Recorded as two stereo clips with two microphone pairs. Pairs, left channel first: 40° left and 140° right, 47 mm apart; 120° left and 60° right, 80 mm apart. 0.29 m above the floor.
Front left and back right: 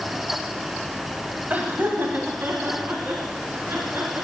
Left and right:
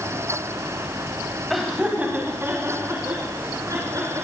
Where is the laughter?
150° right, 1.6 m; by 4.2 s 105° right, 5 m.